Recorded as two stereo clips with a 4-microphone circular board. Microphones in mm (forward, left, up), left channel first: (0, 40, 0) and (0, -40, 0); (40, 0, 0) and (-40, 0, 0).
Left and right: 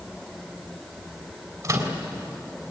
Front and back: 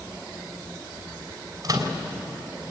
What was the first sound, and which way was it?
A microwave, 135° right.